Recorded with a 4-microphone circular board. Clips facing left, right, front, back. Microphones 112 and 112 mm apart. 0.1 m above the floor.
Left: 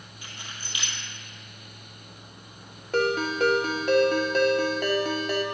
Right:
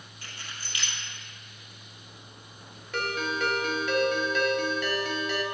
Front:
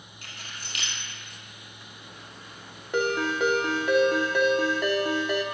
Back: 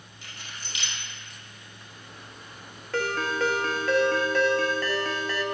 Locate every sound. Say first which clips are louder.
0.2 s keys jangling: left 1 dB, even; 20° left, 1.9 m
2.9 s a ringtone: left 6 dB, front 2 dB; 65° left, 0.6 m